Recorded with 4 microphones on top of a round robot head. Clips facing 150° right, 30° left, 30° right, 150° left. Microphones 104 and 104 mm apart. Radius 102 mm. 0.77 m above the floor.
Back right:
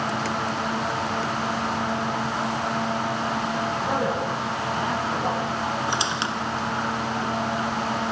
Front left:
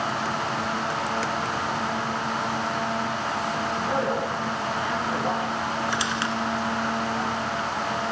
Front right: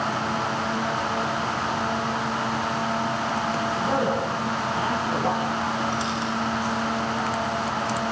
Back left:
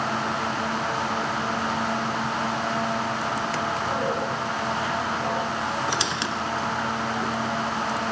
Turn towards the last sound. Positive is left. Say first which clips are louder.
# even, front right 1 dB
turn(degrees=145)